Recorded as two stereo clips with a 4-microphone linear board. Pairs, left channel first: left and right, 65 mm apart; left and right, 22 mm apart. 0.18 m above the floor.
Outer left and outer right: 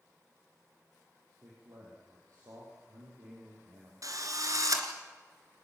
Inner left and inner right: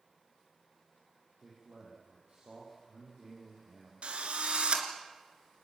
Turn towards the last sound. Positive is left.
turn(degrees=-60)  # may be behind; listen again after turning